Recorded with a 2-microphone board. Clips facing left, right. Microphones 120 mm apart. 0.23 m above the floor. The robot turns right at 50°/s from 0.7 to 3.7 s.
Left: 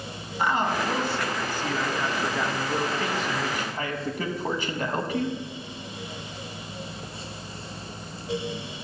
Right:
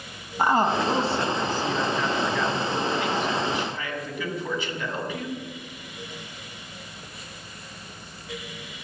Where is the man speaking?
65° right, 1.3 m; by 5.3 s 85° left, 1.3 m.